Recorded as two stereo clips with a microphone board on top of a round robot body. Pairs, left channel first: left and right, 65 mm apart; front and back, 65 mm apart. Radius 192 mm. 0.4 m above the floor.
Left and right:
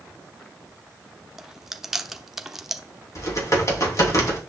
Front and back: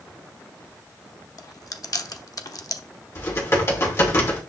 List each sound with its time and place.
1.4 s chewing: 5° right, 1.0 m
3.1 s typing on a keyboard: 50° left, 3 m